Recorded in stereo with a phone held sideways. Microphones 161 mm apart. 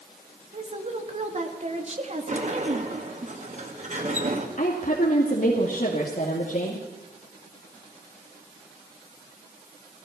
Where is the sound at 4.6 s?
55° left (ahead or behind), 2.5 m.